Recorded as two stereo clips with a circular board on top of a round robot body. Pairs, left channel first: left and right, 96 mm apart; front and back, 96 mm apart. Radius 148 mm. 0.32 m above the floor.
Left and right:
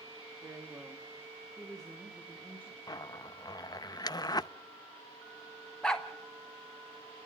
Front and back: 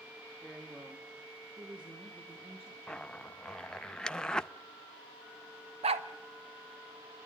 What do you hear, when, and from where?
0.4 s a woman speaking: 95° right, 1.6 m; by 2.8 s 165° left, 3.5 m
2.9 s a zipper: 80° left, 0.6 m
5.8 s a dog barking: 170° left, 0.8 m